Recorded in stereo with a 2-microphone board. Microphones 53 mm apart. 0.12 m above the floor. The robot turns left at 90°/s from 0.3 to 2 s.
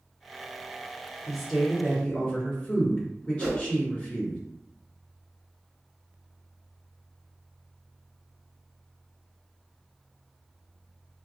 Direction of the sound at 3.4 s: 5° right (ahead or behind).